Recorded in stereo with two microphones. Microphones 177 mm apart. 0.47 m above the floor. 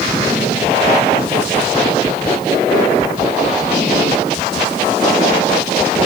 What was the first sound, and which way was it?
Only background noise.